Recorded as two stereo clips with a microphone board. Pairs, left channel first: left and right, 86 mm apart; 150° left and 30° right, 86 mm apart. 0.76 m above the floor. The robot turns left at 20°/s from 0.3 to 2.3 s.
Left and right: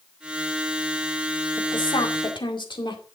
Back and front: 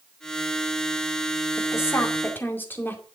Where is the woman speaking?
100° left, 2 m; by 3.0 s 85° left, 2 m.